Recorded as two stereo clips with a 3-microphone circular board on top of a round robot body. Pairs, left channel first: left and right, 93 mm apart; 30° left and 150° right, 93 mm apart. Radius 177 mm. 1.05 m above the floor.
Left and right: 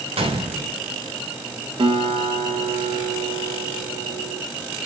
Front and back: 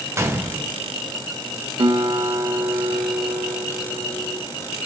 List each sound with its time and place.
0.2 s a gunshot: 90° right, 2 m
1.8 s a guitar: 115° right, 1.6 m